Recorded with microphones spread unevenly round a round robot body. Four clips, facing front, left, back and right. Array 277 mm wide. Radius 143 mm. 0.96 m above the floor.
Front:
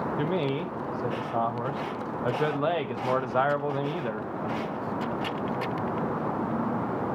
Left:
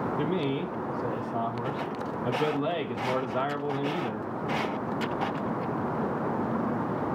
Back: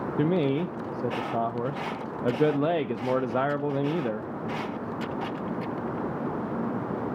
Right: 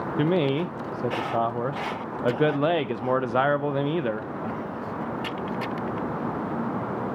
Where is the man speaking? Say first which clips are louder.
Right 10 dB, back 6 dB; 135° right, 0.7 m.